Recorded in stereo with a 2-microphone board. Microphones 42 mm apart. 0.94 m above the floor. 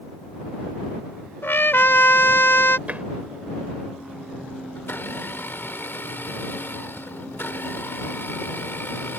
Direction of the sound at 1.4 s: 65° left (ahead or behind).